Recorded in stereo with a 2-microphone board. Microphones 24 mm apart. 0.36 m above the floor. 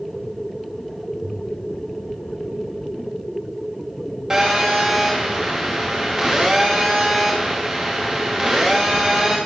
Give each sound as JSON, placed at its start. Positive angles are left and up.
{"t": 4.3, "sound": "a phone buzzing", "side_deg": -20, "distance_m": 6.5}